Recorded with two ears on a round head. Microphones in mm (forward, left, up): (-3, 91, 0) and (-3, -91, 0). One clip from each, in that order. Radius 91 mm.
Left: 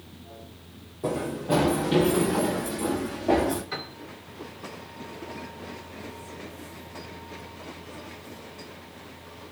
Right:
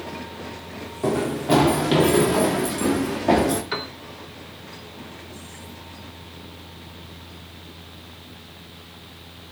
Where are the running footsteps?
50° right (ahead or behind), 5.5 m; by 3.6 s 60° right (ahead or behind), 9 m.